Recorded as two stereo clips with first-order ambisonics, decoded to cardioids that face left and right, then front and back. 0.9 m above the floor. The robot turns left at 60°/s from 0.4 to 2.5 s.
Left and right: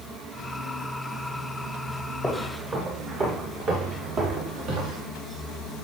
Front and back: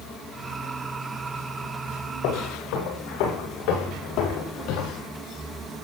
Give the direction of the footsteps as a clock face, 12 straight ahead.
12 o'clock.